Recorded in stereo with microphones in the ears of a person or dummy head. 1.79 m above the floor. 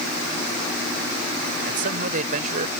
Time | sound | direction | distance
1.7 | a man speaking | 50° right (ahead or behind) | ?